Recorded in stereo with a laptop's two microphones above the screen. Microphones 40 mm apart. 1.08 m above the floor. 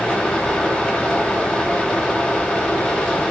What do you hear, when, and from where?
0.0 s a fan: 20° left (ahead or behind), 1.4 m